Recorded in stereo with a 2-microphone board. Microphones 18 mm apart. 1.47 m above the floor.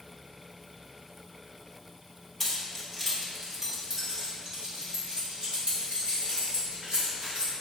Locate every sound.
2.4 s keys jangling: 10° left (ahead or behind), 1.6 m; by 7.5 s 65° right (ahead or behind), 4 m